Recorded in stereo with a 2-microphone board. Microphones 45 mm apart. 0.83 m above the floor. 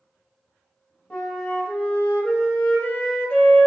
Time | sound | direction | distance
1.1 | a flute | 25° left (ahead or behind) | 1.1 m